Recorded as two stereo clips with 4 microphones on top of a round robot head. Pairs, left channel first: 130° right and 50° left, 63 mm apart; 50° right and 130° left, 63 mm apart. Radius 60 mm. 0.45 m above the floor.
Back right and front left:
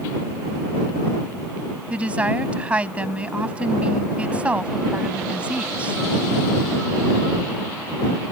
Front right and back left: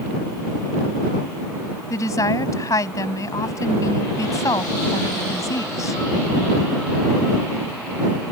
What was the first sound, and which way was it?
A woman speaking, 20° right.